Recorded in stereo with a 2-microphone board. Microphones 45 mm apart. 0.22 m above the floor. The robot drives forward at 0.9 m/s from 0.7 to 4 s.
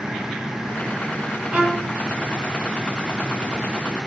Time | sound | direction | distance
1.5 | a violin | 30° right (ahead or behind) | 1.5 m